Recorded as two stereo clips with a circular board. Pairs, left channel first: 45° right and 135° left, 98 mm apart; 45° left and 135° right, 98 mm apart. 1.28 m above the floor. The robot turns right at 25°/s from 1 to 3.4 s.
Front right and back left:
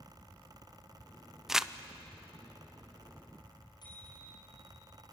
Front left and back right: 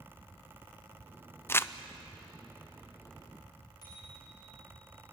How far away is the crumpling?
About 0.5 m.